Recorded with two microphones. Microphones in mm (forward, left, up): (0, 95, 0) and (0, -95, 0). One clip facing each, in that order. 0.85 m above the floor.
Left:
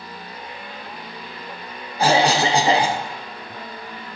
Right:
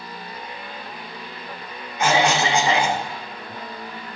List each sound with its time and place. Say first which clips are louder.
2.0 s a cough: left 2 dB; 35° left (ahead or behind), 0.6 m